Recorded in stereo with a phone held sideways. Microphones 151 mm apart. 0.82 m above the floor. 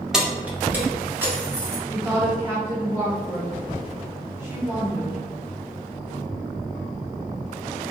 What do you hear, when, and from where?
0.1 s keys jangling: 5° right (ahead or behind), 0.5 m; by 1.8 s 15° right (ahead or behind), 1.3 m
1.9 s a woman speaking: 15° right (ahead or behind), 1.3 m